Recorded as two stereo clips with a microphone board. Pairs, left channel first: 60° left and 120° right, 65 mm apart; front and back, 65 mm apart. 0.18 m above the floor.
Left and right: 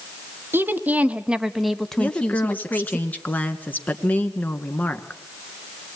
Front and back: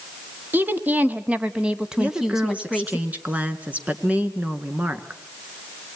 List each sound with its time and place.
0.5 s a woman speaking: 140° right, 1.2 m; by 3.0 s 85° left, 1.2 m
2.0 s a woman speaking: 120° left, 2.0 m